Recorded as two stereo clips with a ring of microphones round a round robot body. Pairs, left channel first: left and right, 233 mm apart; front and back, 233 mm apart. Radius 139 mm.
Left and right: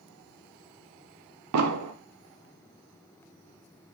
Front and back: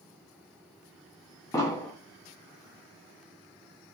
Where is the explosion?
80° right, 0.6 m.